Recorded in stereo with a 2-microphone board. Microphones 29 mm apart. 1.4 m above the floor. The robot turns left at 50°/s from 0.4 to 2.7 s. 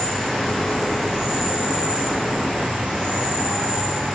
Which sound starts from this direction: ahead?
An insect, at 0.0 s.